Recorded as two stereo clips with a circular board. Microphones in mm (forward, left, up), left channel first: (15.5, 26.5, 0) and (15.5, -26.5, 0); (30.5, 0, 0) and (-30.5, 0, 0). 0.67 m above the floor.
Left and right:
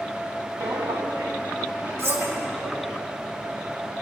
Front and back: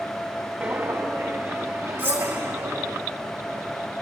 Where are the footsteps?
130° right, 2.5 m; by 3.0 s 160° right, 3 m.